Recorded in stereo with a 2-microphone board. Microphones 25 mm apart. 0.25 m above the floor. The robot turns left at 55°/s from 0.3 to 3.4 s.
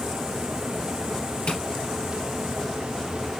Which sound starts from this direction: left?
Tapping, at 1.5 s.